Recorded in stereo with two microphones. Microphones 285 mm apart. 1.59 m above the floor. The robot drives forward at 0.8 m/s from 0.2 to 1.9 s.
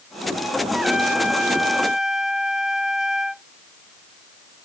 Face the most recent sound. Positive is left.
turn(degrees=0)  # may be behind; listen again after turning